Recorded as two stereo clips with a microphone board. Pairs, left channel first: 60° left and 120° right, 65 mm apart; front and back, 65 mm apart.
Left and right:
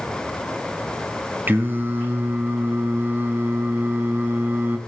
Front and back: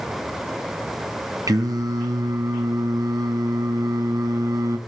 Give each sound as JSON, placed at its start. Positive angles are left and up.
{"t": 1.5, "sound": "singing", "azimuth_deg": -175, "distance_m": 1.3}